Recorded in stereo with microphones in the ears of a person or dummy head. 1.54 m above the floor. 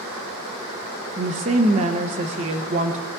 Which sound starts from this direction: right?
A woman speaking, at 1.2 s.